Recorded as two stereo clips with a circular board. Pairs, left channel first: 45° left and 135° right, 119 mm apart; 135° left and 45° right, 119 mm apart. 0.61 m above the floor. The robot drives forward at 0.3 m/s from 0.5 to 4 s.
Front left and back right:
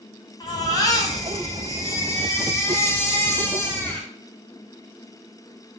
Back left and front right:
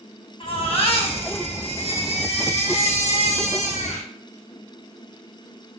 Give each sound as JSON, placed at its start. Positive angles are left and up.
{"t": 0.4, "sound": "a baby crying", "azimuth_deg": 100, "distance_m": 2.5}